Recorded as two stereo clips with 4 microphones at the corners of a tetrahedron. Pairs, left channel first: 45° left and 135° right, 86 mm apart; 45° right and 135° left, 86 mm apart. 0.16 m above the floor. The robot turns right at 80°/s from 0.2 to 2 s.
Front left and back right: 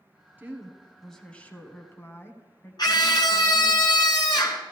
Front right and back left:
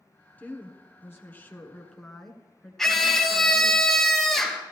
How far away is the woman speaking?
About 1.4 m.